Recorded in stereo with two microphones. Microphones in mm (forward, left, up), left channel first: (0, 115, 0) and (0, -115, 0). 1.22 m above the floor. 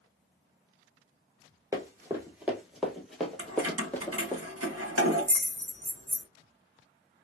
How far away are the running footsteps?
About 1.3 m.